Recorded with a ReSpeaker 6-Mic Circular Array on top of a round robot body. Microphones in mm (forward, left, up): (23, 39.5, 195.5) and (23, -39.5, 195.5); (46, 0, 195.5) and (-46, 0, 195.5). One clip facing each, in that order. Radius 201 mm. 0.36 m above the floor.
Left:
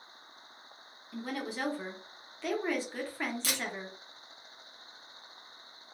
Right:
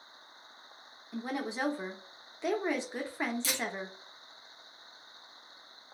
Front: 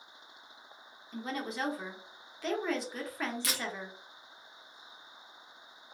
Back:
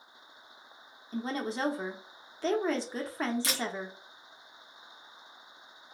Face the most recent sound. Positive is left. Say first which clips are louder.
# even, back 3 dB
turn(degrees=120)